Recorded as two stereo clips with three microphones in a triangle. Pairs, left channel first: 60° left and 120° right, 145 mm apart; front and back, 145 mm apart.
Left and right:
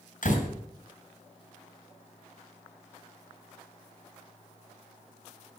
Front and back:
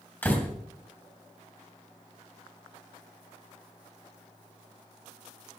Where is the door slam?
75° left, 3 m.